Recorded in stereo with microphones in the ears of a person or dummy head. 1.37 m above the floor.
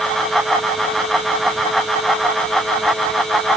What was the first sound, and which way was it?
Only background noise.